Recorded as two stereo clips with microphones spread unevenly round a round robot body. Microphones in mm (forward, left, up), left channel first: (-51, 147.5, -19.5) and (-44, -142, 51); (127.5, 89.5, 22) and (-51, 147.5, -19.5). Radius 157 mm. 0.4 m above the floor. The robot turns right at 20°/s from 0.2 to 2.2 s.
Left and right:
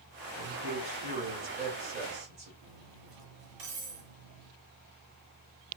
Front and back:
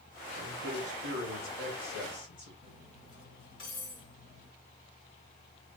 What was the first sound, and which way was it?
A man speaking, 115° right.